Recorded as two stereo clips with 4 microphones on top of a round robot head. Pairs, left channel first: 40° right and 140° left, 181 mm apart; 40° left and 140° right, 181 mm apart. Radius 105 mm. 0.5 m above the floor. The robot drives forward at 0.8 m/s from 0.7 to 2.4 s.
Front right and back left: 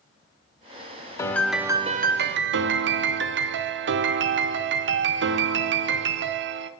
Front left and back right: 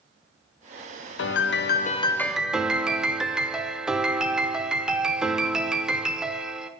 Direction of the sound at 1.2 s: 35° left.